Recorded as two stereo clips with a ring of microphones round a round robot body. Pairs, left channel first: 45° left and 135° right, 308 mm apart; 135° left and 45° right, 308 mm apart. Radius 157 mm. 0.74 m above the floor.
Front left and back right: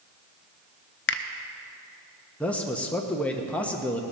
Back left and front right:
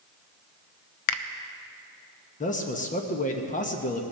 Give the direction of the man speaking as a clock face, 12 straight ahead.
8 o'clock.